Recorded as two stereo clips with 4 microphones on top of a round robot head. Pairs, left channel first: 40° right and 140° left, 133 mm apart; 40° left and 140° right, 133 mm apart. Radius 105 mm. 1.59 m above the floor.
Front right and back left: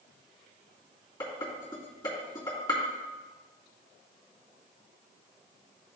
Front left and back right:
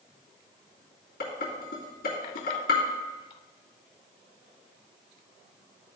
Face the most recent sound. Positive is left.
turn(degrees=25)